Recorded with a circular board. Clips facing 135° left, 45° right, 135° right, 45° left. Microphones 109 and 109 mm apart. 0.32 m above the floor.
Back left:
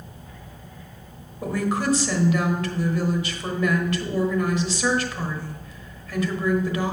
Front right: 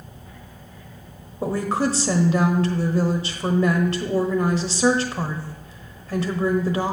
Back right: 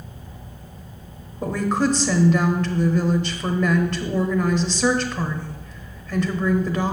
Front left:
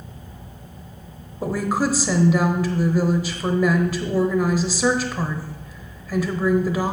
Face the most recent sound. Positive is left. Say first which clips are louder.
# front right 2 dB, back right 1 dB
turn(degrees=-30)